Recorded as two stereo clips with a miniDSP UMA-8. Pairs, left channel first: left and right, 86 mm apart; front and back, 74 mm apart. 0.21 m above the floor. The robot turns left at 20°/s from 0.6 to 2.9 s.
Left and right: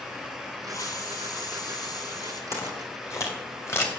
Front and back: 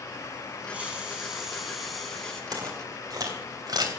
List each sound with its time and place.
0.7 s a hiss: 115° left, 2 m; by 2.4 s 80° left, 2 m
2.5 s footsteps: 145° left, 4.5 m; by 3.9 s 150° left, 4 m